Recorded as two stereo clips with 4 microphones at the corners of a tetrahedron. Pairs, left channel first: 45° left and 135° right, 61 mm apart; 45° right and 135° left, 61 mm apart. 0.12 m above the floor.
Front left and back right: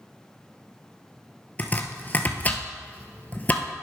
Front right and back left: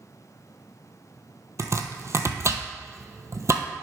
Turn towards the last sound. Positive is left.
turn(degrees=105)